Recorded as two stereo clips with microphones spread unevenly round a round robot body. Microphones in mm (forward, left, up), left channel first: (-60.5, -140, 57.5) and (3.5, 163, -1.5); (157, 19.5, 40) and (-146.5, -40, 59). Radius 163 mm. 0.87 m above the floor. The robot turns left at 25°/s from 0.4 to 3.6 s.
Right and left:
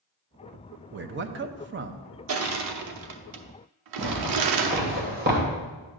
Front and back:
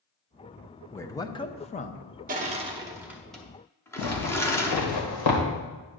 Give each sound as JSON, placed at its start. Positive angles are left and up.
{"t": 0.9, "sound": "a man speaking", "azimuth_deg": 90, "distance_m": 0.6}
{"t": 2.3, "sound": "crushing", "azimuth_deg": 125, "distance_m": 0.8}
{"t": 4.0, "sound": "a zipper", "azimuth_deg": 15, "distance_m": 1.9}